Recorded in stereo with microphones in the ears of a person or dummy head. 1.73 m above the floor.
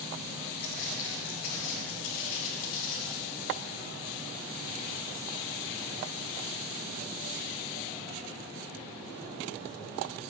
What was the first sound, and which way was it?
Footsteps, 35° left (ahead or behind).